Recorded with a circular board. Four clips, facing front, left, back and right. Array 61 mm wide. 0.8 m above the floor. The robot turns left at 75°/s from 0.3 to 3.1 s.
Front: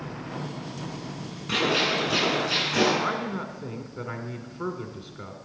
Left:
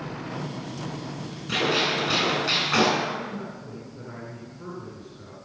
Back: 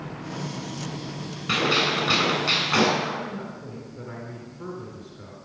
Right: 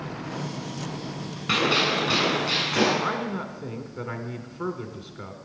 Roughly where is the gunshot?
Right.